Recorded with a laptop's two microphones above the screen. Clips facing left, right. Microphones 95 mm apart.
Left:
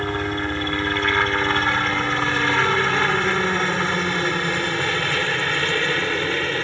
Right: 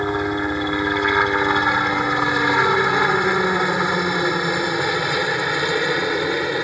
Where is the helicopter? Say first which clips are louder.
Right 3 dB; 15° right (ahead or behind).